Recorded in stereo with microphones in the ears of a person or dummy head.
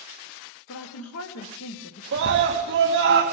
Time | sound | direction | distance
0.7 | a woman speaking | 80° left | 1.5 m
2.1 | a scream | 70° right (ahead or behind) | 1.3 m